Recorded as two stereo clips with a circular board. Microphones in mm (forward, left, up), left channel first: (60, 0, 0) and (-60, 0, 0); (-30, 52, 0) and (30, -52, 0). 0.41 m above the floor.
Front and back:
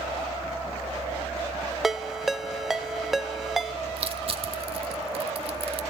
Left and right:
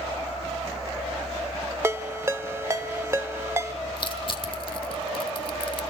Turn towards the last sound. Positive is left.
turn(degrees=155)